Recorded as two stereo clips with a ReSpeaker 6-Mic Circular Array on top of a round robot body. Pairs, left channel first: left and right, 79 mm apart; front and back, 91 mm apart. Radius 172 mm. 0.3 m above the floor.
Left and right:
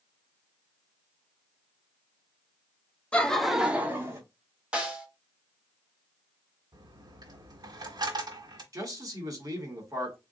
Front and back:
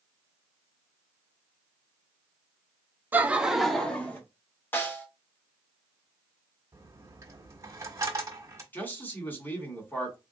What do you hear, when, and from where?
3.1 s laughter: 140° left, 1.1 m; by 4.2 s 60° right, 1.3 m
4.7 s a snare drum: 35° right, 1.6 m
6.7 s a dropped coin: 125° right, 1.2 m
8.7 s a man speaking: 65° right, 2 m